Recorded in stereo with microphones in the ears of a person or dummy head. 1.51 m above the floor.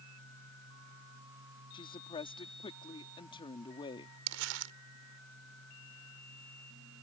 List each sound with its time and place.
0.0 s a fan: 75° right (ahead or behind)
1.7 s a woman speaking: 25° left (ahead or behind)
4.3 s crumpling: 70° right (ahead or behind)